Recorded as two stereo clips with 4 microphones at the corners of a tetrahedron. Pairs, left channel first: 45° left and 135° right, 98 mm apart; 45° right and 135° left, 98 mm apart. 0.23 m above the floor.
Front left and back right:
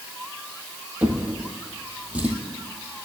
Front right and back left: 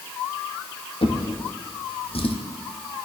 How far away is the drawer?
About 2.5 m.